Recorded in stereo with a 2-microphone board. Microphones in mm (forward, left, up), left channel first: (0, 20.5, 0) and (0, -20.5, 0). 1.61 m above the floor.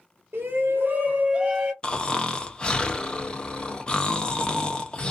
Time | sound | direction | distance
0.3 | a shout | 75° right (ahead or behind) | 0.9 m
1.8 | snoring | 20° left (ahead or behind) | 0.5 m